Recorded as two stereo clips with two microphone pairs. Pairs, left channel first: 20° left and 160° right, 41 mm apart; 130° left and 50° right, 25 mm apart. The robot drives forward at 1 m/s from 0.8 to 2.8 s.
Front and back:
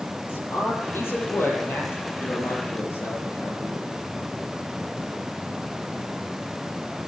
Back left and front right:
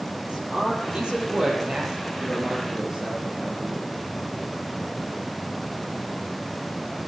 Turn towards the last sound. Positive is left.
turn(degrees=10)